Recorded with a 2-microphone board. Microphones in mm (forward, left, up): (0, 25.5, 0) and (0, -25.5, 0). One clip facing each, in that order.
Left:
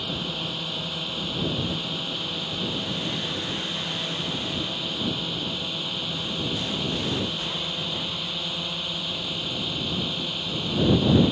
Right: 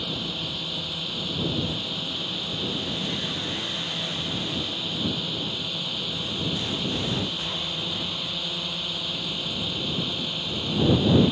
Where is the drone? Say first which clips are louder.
Left 1 dB; 15° left (ahead or behind); by 11.3 s 5° left (ahead or behind).